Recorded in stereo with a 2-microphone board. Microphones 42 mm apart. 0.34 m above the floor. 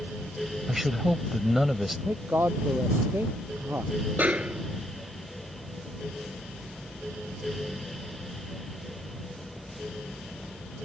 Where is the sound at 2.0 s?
55° right (ahead or behind).